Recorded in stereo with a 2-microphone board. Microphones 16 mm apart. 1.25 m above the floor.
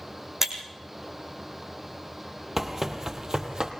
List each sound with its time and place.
0.4 s breaking glass: 25° right (ahead or behind), 3 m
2.6 s running footsteps: 20° right (ahead or behind), 2 m; by 3.7 s 50° right (ahead or behind), 2.5 m